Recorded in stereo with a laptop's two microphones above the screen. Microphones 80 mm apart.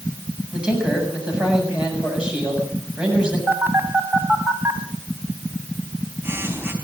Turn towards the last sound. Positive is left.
turn(degrees=-30)  # may be behind; listen again after turning